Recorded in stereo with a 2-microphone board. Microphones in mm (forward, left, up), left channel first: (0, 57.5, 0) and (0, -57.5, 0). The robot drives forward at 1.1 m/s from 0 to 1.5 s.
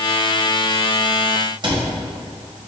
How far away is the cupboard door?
About 1.0 m.